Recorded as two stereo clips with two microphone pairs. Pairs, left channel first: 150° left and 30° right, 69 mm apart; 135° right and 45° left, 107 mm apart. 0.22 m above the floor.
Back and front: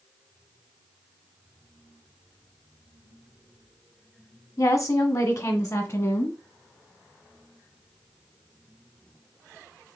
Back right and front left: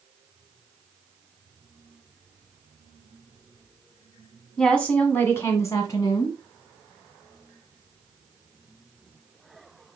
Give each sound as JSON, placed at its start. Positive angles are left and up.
{"t": 4.6, "sound": "a woman speaking", "azimuth_deg": 140, "distance_m": 1.5}